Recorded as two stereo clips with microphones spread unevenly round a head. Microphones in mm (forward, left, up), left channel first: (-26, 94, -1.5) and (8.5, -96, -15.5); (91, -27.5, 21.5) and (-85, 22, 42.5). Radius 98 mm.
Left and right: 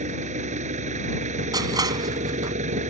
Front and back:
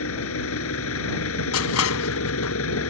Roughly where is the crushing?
Ahead.